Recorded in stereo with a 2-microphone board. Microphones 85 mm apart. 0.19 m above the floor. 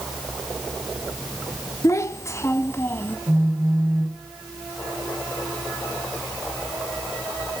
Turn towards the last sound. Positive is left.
turn(degrees=-35)  # may be behind; listen again after turning